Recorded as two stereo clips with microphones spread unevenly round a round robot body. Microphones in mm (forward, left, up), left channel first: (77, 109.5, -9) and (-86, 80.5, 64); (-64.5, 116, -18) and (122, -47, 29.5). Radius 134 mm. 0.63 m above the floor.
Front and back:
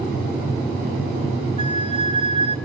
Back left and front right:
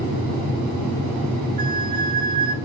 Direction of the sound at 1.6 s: 95° right.